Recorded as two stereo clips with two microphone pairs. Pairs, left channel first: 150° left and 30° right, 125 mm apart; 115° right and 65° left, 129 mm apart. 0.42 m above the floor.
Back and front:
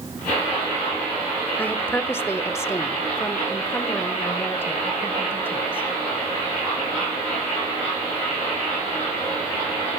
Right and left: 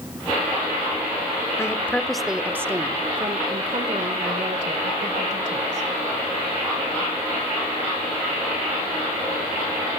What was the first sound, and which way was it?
A woman speaking, 150° right.